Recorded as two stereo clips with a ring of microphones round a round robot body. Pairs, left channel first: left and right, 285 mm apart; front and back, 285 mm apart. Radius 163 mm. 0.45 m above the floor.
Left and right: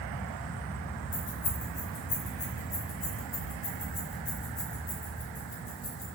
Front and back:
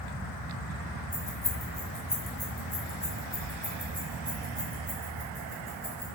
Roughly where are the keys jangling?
Left.